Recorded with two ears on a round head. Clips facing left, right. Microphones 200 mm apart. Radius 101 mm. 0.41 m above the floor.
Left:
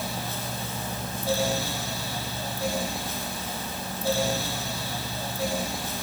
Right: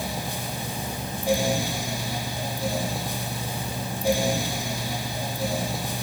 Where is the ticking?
No ticking in this recording.